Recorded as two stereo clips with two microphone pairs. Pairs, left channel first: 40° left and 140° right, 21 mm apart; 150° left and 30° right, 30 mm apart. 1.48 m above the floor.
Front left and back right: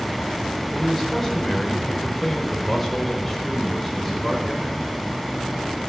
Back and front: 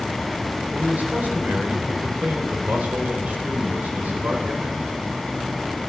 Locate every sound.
0.7 s a man speaking: 40° right, 5 m